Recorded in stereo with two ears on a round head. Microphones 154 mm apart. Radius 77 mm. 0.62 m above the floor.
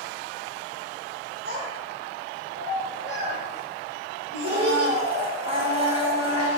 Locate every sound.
1.4 s a child speaking: 60° right (ahead or behind), 8 m
4.4 s a blender: 35° right (ahead or behind), 6 m